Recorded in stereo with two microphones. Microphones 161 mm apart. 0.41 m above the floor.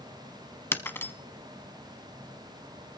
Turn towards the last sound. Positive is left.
turn(degrees=15)  # may be behind; listen again after turning